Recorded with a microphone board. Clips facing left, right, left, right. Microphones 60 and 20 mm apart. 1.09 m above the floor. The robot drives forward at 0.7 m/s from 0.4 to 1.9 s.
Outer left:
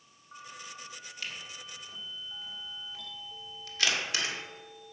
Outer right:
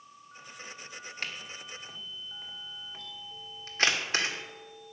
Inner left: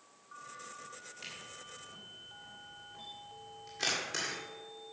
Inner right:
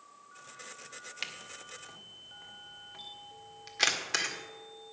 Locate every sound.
1.2 s a camera shutter: 50° right (ahead or behind), 1.4 m; by 4.3 s 40° right (ahead or behind), 1.7 m